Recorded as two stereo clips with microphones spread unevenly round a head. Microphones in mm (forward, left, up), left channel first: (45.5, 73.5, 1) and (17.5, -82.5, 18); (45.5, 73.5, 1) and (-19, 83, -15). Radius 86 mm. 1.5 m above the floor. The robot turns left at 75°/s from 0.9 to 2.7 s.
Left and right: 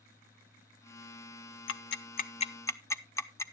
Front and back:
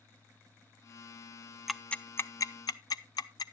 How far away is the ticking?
About 0.6 m.